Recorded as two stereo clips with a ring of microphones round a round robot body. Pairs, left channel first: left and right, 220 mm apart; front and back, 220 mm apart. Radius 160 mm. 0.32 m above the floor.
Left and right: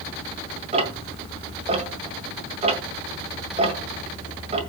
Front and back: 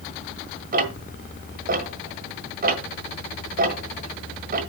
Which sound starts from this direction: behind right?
Ticking, at 0.7 s.